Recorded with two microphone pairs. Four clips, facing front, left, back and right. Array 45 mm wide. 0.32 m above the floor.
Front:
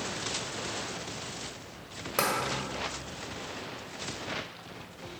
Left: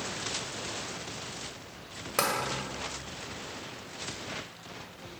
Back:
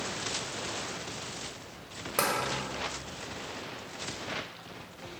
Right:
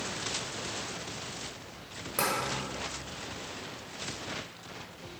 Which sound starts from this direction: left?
Tapping, at 2.2 s.